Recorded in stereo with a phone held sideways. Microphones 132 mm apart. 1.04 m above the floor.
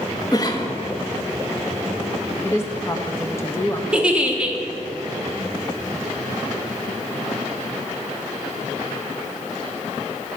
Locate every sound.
0.3 s a cough: 30° left (ahead or behind), 1.3 m
2.4 s a woman speaking: 20° left (ahead or behind), 1.0 m
3.9 s a giggle: 10° right (ahead or behind), 1.0 m